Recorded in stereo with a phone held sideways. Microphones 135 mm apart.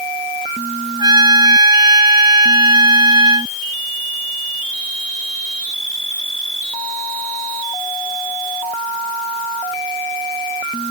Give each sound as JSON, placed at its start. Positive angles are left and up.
{"t": 1.0, "sound": "a trumpet", "side_deg": -30}